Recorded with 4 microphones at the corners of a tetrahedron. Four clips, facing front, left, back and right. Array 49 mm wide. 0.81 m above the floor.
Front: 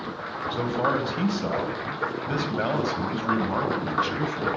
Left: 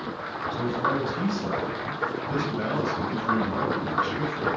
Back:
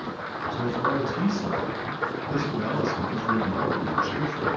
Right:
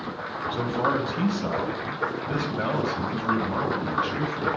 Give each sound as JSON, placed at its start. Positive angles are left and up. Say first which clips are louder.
{"t": 0.5, "sound": "a man speaking", "louder": "right 1 dB, front 1 dB", "azimuth_deg": -30, "distance_m": 4.5}